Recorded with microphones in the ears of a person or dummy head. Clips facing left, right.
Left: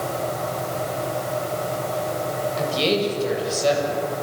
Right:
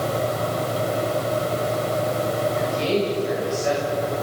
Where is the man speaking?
45° left (ahead or behind), 7.5 m.